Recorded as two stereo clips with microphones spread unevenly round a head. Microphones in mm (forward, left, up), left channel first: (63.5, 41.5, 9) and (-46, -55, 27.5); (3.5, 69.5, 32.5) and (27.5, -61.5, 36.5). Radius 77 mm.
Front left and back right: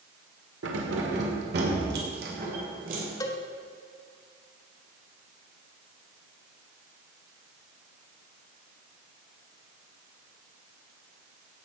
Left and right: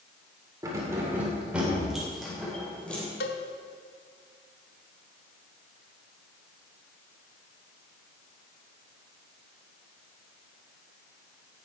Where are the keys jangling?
150° right, 2.5 m; by 3.0 s straight behind, 3 m.